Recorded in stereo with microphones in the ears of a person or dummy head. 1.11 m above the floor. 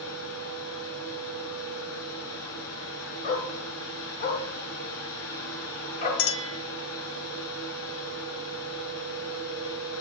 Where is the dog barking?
45° left (ahead or behind), 4 m.